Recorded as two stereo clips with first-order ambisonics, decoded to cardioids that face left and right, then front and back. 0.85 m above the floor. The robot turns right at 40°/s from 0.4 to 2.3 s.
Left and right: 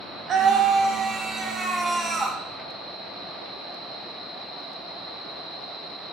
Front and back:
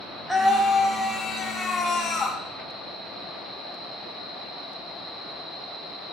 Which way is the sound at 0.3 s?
95° right.